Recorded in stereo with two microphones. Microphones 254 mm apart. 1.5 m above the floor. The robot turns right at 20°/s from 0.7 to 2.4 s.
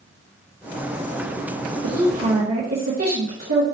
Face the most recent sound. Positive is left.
turn(degrees=-75)  # may be behind; listen again after turning